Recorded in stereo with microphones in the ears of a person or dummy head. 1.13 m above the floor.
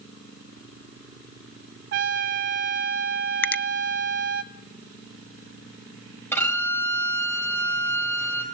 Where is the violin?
10° left (ahead or behind), 3.5 m.